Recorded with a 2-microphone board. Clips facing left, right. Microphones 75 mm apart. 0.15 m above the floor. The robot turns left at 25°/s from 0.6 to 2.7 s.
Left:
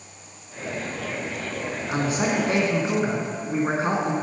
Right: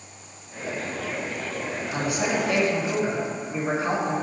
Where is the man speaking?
30° left (ahead or behind), 1.4 m.